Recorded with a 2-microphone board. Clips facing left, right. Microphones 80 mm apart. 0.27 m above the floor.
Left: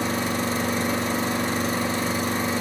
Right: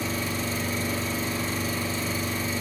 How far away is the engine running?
About 1.4 m.